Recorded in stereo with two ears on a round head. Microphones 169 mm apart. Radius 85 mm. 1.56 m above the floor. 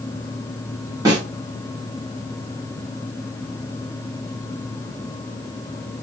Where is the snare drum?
20° right (ahead or behind), 1.0 m.